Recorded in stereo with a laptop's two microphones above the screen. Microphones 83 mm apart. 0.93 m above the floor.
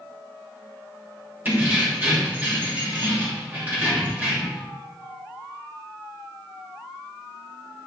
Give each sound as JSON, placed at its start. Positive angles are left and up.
{"t": 1.4, "sound": "keys jangling", "side_deg": -25, "distance_m": 1.3}